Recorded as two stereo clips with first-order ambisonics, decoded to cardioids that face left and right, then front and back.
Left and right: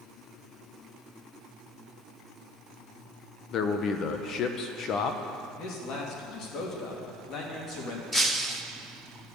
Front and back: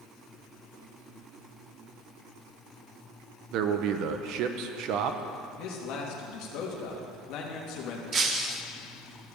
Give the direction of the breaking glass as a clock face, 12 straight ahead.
7 o'clock.